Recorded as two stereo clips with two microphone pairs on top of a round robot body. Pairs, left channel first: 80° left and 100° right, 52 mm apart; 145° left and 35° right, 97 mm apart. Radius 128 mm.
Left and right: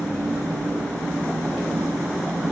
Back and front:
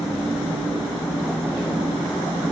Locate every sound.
0.0 s an engine running: 160° left, 4.5 m